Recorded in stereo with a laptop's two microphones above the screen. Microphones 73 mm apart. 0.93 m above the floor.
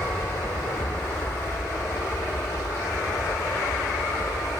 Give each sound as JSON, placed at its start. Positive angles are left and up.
{"t": 0.0, "sound": "an aircraft", "side_deg": 45}